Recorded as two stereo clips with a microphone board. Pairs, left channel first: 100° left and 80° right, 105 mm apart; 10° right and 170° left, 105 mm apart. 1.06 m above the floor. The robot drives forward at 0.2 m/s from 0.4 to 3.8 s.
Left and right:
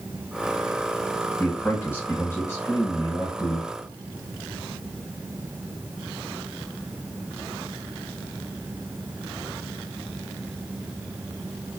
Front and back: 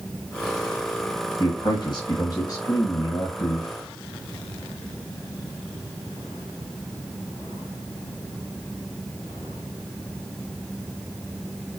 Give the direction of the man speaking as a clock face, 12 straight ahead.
11 o'clock.